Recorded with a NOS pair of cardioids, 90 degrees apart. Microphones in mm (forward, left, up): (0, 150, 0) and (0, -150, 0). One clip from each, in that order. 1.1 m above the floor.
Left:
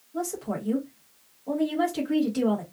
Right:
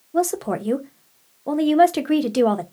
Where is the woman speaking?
65° right, 0.9 m.